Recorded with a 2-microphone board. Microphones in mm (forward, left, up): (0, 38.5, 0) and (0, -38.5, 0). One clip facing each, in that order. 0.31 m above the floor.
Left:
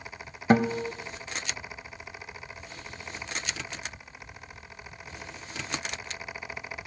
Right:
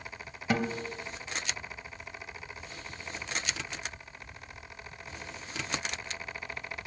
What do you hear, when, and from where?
0.5 s a guitar: 40° left (ahead or behind), 0.8 m